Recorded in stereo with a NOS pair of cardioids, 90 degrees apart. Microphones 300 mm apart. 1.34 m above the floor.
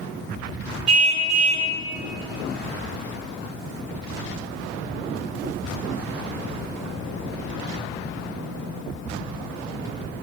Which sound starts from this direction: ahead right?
A car horn, at 0.9 s.